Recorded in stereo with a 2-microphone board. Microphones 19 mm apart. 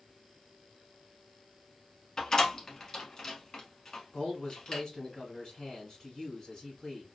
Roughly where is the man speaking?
Left.